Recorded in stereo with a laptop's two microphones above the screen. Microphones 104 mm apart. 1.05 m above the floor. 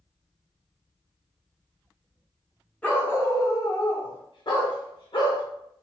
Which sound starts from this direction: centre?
A dog barking, at 2.8 s.